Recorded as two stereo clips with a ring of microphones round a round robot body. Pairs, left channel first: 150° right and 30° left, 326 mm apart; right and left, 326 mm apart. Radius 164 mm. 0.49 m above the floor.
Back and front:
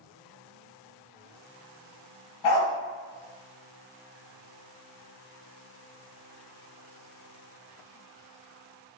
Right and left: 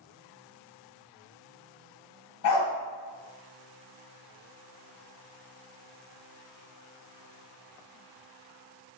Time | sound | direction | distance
2.4 | a dog barking | 130° right | 1.6 m